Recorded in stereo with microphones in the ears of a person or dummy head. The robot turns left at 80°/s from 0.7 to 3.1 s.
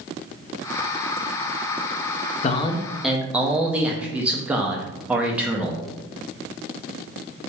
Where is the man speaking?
45° left, 0.6 m; by 5.8 s 5° right, 0.6 m.